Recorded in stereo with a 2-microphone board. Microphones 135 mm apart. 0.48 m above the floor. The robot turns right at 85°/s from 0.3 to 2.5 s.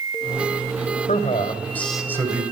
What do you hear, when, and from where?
1.1 s a man speaking: 105° left, 2.5 m; by 2.4 s 140° right, 2.5 m